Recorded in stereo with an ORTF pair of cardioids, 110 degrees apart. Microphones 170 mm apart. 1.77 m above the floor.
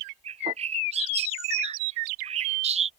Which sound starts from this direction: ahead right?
A bird, at 0.2 s.